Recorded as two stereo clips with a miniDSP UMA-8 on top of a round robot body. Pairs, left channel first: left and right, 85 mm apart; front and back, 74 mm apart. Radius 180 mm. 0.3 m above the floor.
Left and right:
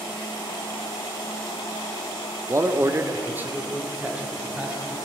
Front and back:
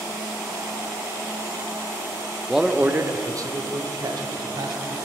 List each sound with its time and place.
2.5 s a man speaking: 90° right, 0.9 m; by 5.0 s 170° right, 3 m